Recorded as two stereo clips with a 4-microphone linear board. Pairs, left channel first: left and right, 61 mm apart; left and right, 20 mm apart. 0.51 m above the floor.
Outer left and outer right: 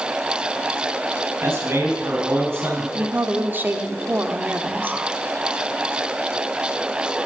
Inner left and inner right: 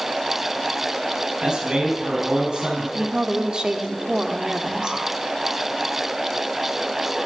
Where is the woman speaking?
35° right (ahead or behind), 1.1 m.